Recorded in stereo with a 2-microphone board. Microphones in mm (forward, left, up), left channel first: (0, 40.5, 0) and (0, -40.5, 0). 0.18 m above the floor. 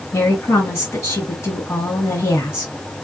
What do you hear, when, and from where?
0.1 s a woman speaking: 30° left (ahead or behind), 1.5 m